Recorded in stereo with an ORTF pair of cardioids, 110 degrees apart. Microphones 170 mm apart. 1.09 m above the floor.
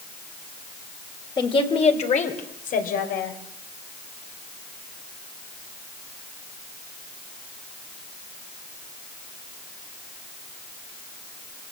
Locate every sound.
1.4 s a woman speaking: 25° left, 3.5 m; by 3.3 s 65° left, 5.5 m